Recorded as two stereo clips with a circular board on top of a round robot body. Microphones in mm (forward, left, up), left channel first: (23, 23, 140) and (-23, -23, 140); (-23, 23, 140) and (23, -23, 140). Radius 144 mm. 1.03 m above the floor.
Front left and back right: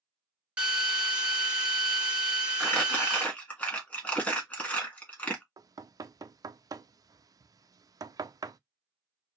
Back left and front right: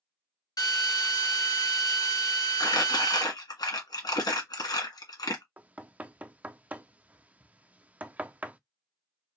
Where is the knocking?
110° right, 0.5 m.